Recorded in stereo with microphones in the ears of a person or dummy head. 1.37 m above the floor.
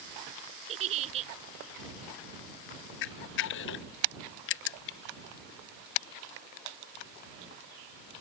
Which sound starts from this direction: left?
A camera shutter, at 3.0 s.